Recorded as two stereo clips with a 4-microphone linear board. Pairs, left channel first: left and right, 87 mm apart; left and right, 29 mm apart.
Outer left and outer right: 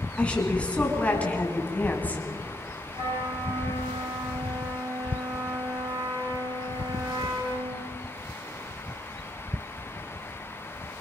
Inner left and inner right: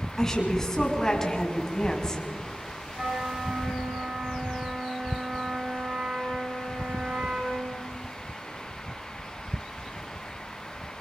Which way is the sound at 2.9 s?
65° right (ahead or behind).